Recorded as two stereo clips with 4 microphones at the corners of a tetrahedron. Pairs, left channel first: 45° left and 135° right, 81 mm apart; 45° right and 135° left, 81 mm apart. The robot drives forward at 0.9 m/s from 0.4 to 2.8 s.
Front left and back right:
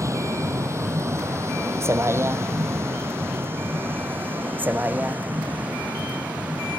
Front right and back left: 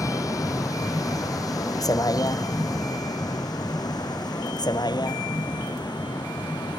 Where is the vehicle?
90° right; by 6.8 s 65° right.